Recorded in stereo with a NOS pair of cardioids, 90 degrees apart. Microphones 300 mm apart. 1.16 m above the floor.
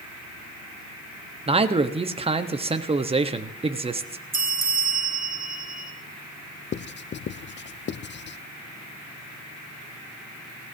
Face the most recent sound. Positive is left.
turn(degrees=35)